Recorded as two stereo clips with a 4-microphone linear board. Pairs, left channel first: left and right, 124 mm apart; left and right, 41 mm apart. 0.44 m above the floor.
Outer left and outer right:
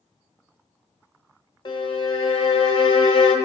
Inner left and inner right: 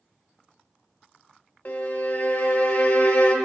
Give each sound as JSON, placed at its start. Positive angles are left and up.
{"t": 1.6, "sound": "a violin", "side_deg": 40, "distance_m": 1.1}